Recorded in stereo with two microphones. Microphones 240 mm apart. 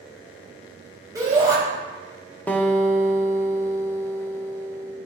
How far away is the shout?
About 3.5 m.